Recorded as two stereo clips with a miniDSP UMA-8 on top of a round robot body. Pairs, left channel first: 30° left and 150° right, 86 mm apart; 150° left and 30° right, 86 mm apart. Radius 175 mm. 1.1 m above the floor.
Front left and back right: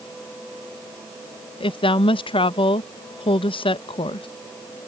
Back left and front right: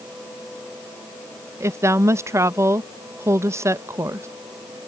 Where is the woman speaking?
25° left.